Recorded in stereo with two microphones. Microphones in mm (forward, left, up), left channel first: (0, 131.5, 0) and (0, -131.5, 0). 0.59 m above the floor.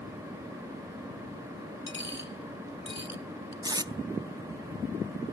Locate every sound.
1.9 s a dropped coin: 45° left (ahead or behind), 0.8 m
3.6 s tape being pulled: 15° right (ahead or behind), 0.5 m